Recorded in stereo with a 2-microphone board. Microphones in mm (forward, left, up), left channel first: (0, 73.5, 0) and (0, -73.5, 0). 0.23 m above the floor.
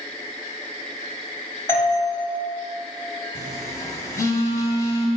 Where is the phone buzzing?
25° left (ahead or behind), 0.9 m.